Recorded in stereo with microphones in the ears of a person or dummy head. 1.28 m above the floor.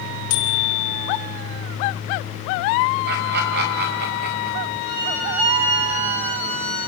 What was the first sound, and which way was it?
A bicycle bell, 85° left.